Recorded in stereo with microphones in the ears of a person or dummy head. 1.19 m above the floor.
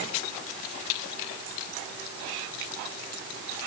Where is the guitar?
No guitar in this recording.